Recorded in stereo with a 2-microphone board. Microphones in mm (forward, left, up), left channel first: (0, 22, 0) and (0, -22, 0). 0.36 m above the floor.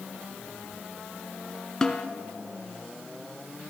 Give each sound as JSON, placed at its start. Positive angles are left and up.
{"t": 1.8, "sound": "a snare drum", "side_deg": 15, "distance_m": 1.1}